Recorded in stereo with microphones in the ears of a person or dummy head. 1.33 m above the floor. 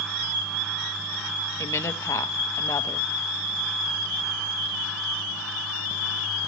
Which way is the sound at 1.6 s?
15° left (ahead or behind).